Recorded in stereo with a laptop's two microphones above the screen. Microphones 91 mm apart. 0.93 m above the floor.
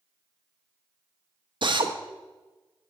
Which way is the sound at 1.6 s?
60° right (ahead or behind).